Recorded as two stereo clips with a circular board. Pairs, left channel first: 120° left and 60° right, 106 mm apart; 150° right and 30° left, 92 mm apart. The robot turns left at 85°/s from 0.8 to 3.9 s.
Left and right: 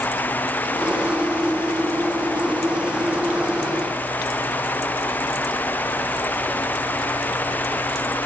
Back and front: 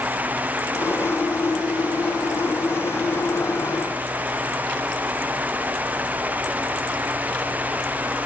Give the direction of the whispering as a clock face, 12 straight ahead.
I don't hear whispering.